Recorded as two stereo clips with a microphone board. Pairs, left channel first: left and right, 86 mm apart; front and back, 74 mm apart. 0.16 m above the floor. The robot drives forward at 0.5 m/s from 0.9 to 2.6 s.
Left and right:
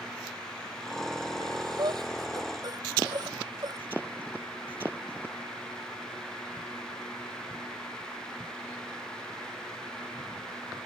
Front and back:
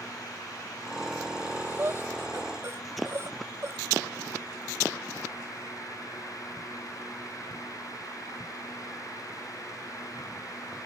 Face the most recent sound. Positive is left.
turn(degrees=-130)